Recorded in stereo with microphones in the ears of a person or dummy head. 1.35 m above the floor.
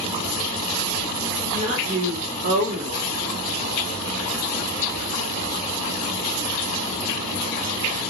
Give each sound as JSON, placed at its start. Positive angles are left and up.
{"t": 1.5, "sound": "a woman speaking", "side_deg": -50, "distance_m": 3.5}